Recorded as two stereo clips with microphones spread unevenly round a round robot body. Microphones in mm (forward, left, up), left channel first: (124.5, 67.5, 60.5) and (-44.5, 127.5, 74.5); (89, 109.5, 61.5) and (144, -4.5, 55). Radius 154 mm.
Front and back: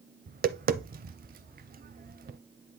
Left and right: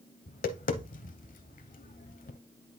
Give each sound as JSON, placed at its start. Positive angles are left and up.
{"t": 0.3, "sound": "tapping", "azimuth_deg": 120, "distance_m": 0.6}